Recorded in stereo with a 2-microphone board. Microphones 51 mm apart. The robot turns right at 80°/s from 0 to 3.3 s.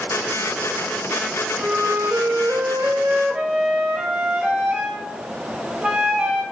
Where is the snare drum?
I don't hear a snare drum.